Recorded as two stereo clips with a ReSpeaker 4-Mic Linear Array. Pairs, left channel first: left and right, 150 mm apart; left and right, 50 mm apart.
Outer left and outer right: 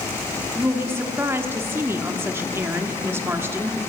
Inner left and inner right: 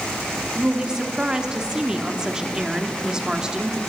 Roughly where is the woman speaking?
Centre.